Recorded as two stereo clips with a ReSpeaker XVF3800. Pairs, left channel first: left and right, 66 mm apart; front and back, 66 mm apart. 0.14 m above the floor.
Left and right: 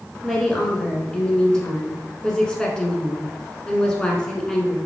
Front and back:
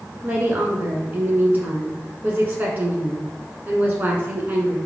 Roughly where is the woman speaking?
Behind left.